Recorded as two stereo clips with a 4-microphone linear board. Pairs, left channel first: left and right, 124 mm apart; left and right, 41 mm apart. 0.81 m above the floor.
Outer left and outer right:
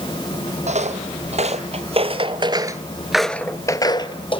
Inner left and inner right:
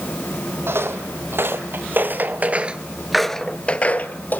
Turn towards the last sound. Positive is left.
turn(degrees=45)  # may be behind; listen again after turning